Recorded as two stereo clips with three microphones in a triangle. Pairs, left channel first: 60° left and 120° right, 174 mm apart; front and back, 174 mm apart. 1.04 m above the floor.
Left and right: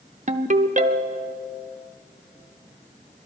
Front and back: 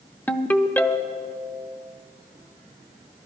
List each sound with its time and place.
0.3 s a ringtone: 80° right, 0.7 m